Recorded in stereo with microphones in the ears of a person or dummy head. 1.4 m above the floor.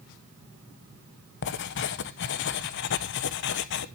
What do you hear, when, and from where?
1.4 s writing: 60° left (ahead or behind), 0.9 m